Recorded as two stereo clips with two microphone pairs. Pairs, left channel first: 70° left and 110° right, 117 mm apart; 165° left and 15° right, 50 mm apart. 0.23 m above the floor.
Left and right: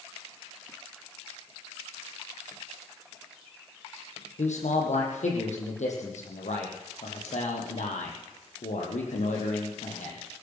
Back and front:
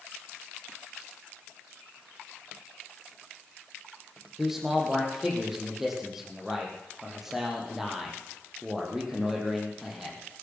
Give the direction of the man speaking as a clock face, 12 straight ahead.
10 o'clock.